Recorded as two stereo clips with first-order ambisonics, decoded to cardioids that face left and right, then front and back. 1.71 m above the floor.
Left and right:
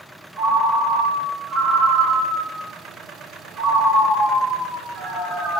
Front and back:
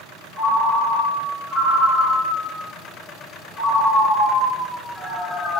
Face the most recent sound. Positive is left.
turn(degrees=-115)